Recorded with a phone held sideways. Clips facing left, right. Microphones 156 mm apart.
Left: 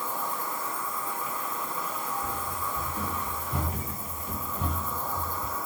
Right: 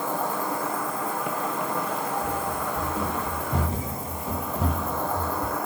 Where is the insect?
70° right (ahead or behind), 1.0 m.